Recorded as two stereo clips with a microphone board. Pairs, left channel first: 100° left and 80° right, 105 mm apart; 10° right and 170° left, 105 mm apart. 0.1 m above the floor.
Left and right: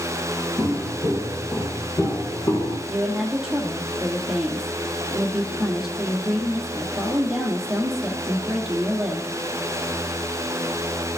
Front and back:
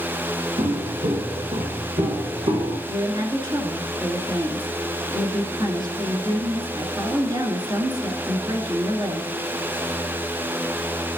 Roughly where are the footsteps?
Behind.